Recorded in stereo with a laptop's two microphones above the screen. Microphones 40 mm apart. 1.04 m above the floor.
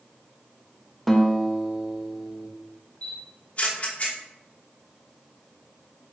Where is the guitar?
5° left (ahead or behind), 0.9 m.